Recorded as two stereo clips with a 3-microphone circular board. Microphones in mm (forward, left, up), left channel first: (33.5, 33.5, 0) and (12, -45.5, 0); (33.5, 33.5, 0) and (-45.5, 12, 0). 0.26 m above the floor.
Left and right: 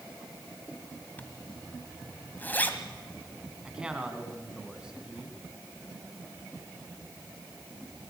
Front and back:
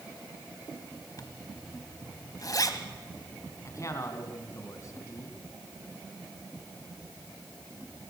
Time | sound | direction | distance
1.2 | a zipper | 15° left | 1.6 m
3.6 | a man speaking | 30° right | 3 m